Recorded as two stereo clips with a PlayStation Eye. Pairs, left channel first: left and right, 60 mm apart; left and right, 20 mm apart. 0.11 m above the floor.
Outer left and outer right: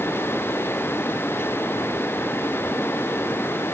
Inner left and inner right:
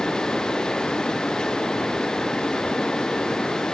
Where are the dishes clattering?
I don't hear dishes clattering.